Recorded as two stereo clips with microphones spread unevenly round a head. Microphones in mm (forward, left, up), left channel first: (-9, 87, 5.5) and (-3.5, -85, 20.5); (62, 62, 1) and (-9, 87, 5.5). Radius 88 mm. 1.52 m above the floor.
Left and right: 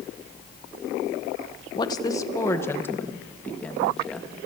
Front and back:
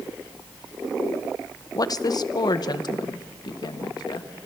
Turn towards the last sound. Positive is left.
turn(degrees=5)